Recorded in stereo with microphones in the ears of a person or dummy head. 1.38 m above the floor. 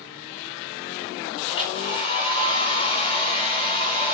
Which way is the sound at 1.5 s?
35° left (ahead or behind).